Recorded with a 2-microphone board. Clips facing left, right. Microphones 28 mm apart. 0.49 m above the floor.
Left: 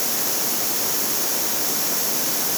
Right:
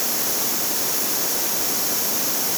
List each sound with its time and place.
Only background noise.